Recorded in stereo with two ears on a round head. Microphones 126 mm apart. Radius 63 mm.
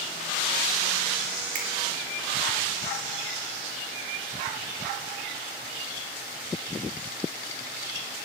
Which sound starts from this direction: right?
A finger snap, at 1.6 s.